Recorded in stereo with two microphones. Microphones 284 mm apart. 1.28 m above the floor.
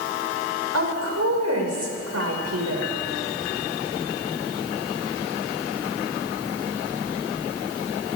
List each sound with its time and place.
0.7 s a woman speaking: 65° right (ahead or behind), 5.5 m